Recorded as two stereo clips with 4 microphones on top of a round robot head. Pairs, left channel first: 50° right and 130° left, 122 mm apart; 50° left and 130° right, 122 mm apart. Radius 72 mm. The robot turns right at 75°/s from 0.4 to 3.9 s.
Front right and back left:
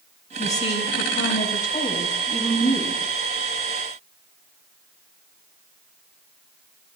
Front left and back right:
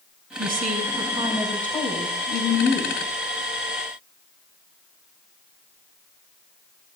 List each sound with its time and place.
0.4 s a woman speaking: 120° right, 4.5 m; by 2.9 s 70° left, 4.5 m